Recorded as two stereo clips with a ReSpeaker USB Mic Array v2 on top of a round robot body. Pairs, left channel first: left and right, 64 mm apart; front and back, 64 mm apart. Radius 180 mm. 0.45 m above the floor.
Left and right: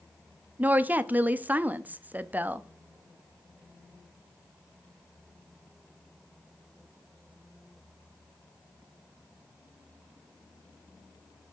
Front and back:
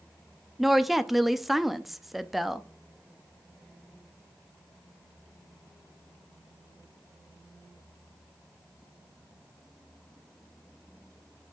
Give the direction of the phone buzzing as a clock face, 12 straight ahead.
I don't hear a phone buzzing.